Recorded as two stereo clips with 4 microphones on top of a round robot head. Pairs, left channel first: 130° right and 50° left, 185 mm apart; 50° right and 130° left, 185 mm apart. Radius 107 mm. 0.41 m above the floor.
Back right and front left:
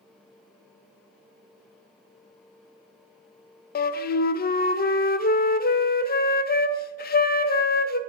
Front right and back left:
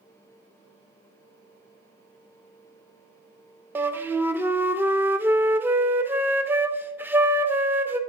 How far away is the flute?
About 0.5 m.